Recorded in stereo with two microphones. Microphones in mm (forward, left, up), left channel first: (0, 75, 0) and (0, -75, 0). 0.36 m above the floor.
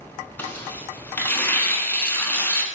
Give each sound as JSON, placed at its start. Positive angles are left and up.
{"t": 0.4, "sound": "tearing paper", "side_deg": 15, "distance_m": 0.6}